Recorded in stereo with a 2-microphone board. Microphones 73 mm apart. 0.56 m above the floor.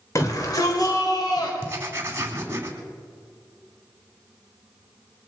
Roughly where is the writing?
Right.